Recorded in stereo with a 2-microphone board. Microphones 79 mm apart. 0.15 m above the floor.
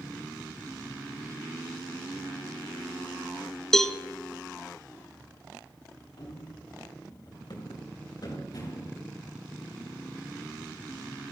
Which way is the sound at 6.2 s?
65° left (ahead or behind).